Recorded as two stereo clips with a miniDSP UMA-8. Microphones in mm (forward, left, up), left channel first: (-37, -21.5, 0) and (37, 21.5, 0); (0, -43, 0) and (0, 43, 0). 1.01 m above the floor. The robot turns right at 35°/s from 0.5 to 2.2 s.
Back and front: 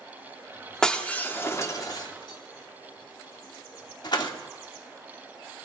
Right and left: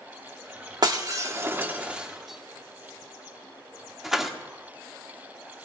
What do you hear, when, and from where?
0.8 s breaking glass: 130° left, 1.5 m; by 4.3 s 175° left, 1.5 m